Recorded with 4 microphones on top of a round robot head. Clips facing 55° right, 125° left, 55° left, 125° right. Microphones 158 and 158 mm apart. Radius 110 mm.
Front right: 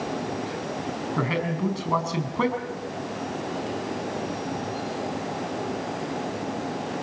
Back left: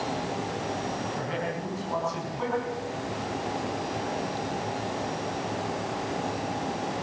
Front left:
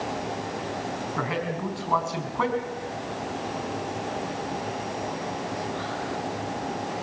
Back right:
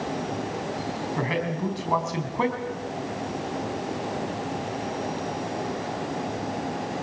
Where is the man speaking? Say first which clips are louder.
Front right 5 dB, back right 2 dB; 60° right, 5 m.